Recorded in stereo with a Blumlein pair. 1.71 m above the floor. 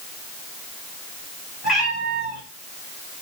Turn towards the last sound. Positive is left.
turn(degrees=20)